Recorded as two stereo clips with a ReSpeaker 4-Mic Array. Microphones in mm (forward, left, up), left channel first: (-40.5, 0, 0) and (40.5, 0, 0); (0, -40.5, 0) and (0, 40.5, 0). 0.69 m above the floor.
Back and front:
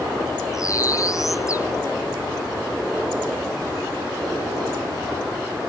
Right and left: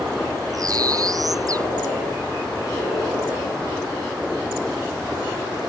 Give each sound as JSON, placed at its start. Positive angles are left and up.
{"t": 0.5, "sound": "a bird", "azimuth_deg": 130}